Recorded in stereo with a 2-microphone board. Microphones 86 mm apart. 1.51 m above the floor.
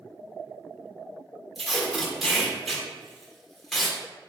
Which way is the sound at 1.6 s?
Centre (ahead or behind).